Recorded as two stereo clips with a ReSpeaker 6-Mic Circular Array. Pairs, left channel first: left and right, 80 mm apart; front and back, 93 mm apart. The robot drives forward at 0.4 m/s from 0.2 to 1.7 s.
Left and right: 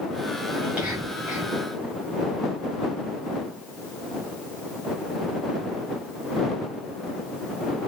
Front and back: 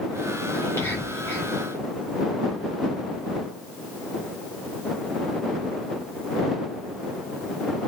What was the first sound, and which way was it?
Whispering, 35° right.